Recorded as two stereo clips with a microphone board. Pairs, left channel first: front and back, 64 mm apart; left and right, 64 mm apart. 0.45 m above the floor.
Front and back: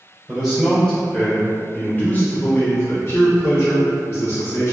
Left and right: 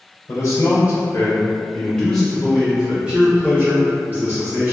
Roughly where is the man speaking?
Left.